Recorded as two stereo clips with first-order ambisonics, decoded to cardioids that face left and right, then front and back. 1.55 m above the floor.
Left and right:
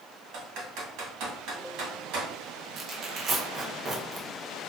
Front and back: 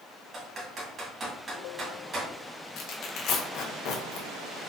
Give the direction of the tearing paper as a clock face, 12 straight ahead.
1 o'clock.